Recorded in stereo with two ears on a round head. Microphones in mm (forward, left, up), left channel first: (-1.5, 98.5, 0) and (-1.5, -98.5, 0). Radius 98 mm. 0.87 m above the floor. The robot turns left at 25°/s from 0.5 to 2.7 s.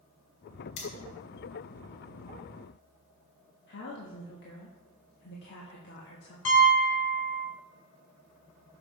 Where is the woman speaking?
55° left (ahead or behind), 1.2 m.